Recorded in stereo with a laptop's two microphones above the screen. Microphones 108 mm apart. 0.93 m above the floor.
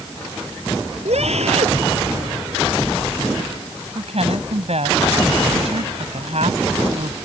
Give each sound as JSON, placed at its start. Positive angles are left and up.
{"t": 1.1, "sound": "a scream", "side_deg": -75}
{"t": 4.0, "sound": "a woman speaking", "side_deg": -70}